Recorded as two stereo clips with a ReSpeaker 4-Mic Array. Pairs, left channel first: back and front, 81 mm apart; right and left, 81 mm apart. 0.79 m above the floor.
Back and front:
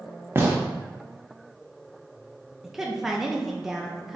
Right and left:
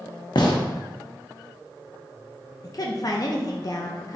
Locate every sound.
0.3 s a gunshot: 65° right, 0.8 m
2.6 s a woman speaking: 85° right, 0.5 m